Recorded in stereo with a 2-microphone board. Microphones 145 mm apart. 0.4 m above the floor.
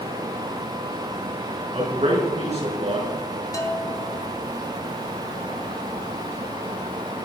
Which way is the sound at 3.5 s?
25° left (ahead or behind).